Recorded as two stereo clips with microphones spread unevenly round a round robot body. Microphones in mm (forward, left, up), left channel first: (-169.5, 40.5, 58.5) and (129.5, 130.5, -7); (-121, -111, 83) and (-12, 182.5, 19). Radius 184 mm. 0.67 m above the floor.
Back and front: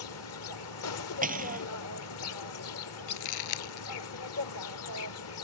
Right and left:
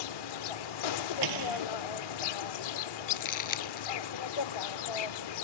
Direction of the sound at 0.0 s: 110° right.